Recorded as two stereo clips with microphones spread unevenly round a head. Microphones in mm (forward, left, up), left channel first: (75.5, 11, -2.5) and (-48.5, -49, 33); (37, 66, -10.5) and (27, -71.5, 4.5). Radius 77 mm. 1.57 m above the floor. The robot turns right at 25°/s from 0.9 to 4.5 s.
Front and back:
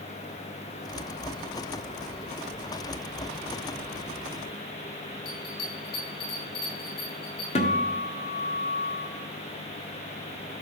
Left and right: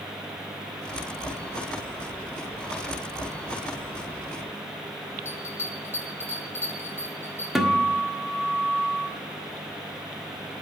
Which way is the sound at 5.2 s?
10° left.